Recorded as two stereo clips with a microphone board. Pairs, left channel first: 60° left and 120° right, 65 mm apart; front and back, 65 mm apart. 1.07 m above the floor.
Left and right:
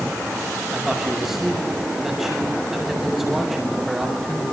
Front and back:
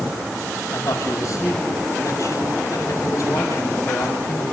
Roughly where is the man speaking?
Ahead right.